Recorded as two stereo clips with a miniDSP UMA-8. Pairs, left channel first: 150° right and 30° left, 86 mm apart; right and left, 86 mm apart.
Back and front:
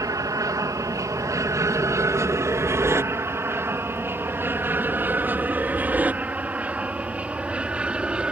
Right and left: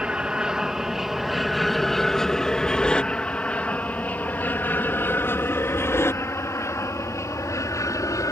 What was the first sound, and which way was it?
An aircraft, 15° left.